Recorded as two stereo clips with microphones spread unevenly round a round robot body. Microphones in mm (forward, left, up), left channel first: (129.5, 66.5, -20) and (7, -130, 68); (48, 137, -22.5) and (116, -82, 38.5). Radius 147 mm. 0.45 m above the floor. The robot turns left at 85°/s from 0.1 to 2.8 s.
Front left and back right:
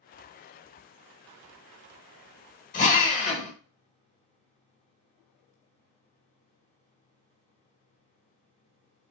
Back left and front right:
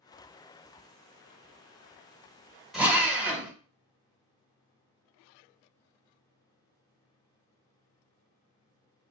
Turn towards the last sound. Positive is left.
turn(degrees=20)